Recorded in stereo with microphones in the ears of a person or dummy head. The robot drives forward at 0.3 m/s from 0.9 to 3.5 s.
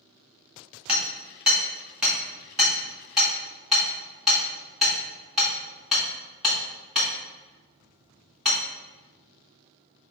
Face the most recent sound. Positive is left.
turn(degrees=0)  # may be behind; listen again after turning